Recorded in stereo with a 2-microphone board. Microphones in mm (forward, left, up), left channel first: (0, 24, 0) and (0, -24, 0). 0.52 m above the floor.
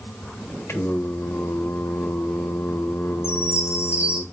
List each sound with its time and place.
0.7 s singing: 65° left (ahead or behind), 0.5 m
3.2 s a chime: 75° left (ahead or behind), 1.4 m